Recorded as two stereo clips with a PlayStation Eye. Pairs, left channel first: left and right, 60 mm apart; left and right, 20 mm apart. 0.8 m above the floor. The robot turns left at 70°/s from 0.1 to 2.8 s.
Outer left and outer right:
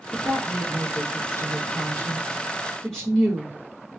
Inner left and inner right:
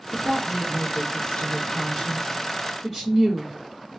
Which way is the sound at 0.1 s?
165° right.